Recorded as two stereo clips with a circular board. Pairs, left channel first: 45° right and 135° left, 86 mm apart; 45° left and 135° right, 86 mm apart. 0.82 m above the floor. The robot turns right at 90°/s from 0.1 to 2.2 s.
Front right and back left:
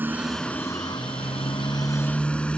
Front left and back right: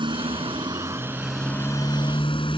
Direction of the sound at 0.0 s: 155° right.